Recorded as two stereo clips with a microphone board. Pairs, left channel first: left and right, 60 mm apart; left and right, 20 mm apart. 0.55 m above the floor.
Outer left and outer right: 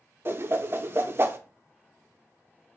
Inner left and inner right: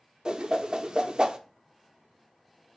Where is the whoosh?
40° right (ahead or behind), 0.5 m.